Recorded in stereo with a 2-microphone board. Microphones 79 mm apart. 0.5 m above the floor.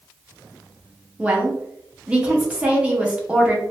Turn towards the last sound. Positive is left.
turn(degrees=-15)  # may be behind; listen again after turning